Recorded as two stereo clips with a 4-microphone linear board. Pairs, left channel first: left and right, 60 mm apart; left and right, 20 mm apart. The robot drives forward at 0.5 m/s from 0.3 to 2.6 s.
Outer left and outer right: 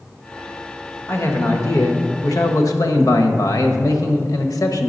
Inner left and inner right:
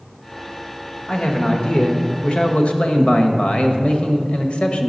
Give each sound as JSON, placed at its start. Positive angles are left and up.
{"t": 1.1, "sound": "a man speaking", "side_deg": 50, "distance_m": 1.3}